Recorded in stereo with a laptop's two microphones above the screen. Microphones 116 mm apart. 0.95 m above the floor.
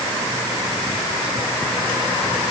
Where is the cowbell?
No cowbell in this recording.